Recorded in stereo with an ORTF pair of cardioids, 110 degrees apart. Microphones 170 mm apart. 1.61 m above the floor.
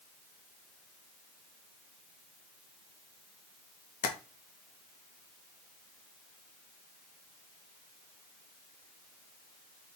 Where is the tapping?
60° left, 0.8 m.